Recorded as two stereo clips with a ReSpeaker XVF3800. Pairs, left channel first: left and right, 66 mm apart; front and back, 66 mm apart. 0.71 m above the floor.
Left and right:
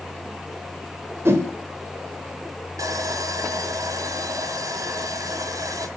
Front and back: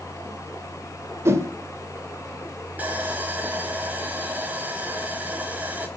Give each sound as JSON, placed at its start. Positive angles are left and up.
{"t": 1.2, "sound": "a whoosh", "azimuth_deg": -135, "distance_m": 1.9}
{"t": 2.8, "sound": "sawing", "azimuth_deg": -115, "distance_m": 2.5}